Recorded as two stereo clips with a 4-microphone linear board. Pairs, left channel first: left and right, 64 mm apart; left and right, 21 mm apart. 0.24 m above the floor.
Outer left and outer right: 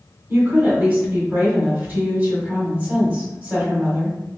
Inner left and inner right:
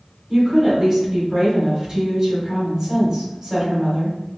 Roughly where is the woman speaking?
Right.